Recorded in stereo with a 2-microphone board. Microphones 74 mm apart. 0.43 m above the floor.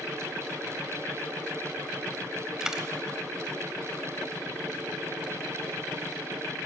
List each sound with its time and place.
2.6 s a dropped coin: 10° right (ahead or behind), 0.9 m